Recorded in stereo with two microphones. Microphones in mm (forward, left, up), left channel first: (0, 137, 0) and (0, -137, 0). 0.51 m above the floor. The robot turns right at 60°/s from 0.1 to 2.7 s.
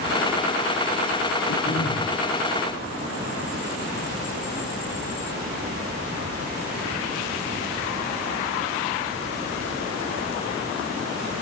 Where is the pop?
No pop in this recording.